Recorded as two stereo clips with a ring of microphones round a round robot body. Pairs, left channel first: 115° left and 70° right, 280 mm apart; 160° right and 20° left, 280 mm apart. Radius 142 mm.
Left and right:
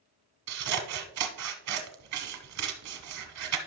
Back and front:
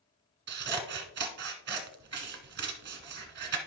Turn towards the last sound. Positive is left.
turn(degrees=-35)